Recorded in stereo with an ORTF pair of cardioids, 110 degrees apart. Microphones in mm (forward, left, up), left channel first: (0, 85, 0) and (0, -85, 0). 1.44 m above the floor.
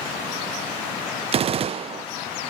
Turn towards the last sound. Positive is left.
turn(degrees=-40)